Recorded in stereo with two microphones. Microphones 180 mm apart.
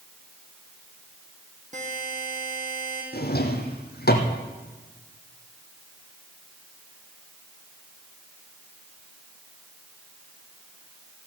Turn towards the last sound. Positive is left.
turn(degrees=65)  # may be behind; listen again after turning